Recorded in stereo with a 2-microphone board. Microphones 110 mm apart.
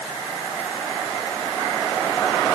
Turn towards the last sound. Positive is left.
No sound to turn to.